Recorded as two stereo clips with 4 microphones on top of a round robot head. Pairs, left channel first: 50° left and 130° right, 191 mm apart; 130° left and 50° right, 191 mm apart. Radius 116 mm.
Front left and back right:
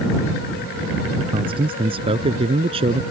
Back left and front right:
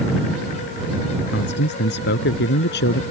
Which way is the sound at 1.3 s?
165° left.